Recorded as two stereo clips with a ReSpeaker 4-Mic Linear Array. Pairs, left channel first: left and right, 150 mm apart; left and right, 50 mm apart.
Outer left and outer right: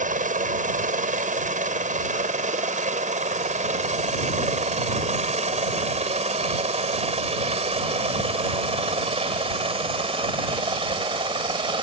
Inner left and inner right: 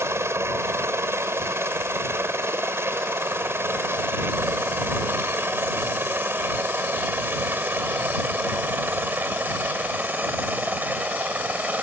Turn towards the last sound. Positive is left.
turn(degrees=-35)  # may be behind; listen again after turning